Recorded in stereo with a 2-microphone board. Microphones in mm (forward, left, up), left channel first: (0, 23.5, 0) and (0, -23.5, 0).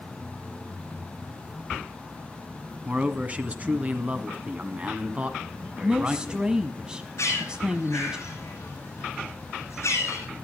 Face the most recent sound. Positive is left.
turn(degrees=75)  # may be behind; listen again after turning